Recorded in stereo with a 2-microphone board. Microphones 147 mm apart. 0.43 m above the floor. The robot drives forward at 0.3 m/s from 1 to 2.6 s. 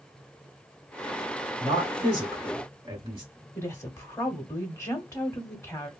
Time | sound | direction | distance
1.6 | a man speaking | 35° right (ahead or behind) | 1.5 m
3.5 | a woman speaking | 20° left (ahead or behind) | 0.8 m